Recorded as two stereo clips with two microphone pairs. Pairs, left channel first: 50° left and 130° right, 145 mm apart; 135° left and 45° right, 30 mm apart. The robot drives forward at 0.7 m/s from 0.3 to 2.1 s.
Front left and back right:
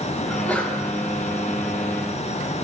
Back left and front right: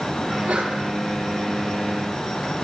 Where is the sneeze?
25° right, 4.5 m; by 0.7 s 30° right, 4.5 m.